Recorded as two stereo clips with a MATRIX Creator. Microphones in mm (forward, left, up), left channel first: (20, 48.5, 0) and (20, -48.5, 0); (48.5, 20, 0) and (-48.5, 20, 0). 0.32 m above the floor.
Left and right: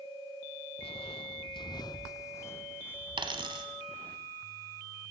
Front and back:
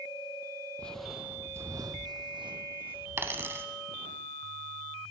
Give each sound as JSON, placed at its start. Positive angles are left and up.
{"t": 0.8, "sound": "footsteps", "azimuth_deg": 75, "distance_m": 0.7}
{"t": 3.2, "sound": "a dropped coin", "azimuth_deg": -115, "distance_m": 1.4}